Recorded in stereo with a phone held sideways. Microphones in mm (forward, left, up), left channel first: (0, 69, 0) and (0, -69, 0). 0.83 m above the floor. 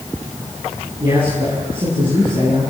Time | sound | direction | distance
1.0 | a man speaking | 40° right (ahead or behind) | 10 m